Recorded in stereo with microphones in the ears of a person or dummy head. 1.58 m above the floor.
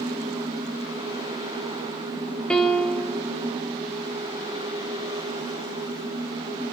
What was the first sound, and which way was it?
A piano, 10° left (ahead or behind).